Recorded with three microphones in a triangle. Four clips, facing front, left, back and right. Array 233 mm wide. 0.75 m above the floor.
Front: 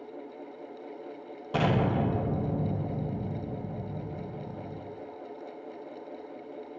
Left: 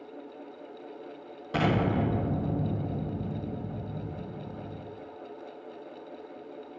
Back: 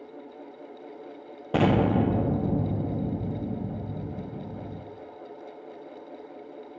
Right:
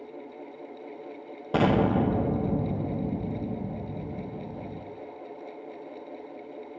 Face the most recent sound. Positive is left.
turn(degrees=-150)